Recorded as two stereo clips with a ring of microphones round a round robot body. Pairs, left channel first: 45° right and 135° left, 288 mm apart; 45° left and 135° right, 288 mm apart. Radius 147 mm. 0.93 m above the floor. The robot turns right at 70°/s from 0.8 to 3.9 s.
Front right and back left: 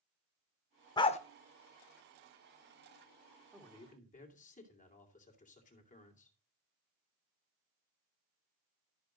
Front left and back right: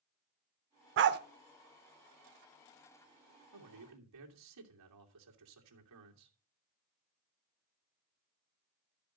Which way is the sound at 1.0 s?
115° right.